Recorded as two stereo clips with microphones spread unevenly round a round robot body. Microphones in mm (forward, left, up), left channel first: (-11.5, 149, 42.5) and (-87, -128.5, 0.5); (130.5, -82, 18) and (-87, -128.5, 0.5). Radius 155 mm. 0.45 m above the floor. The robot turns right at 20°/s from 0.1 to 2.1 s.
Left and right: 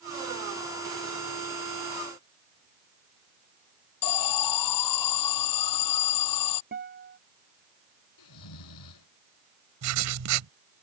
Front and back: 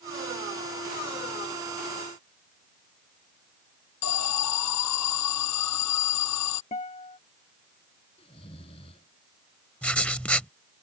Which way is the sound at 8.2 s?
85° left.